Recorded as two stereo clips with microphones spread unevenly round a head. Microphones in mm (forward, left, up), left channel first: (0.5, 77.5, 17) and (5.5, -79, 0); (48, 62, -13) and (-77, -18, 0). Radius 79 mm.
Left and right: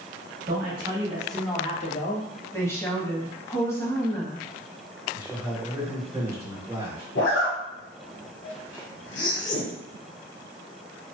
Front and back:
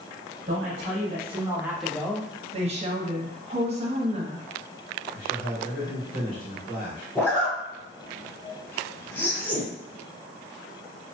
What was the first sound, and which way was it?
A man speaking, 120° right.